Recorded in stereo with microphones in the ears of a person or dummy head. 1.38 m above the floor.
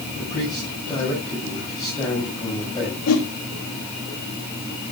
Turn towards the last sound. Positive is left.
turn(degrees=85)